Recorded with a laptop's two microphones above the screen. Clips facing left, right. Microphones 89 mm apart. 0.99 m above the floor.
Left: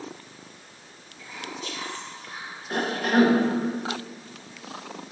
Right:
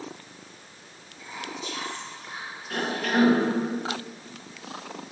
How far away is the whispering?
About 1.3 m.